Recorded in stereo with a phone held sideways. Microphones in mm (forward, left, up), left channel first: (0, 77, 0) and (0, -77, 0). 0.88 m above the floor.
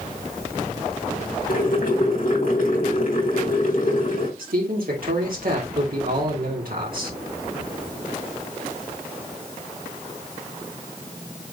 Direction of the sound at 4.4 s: 75° right (ahead or behind).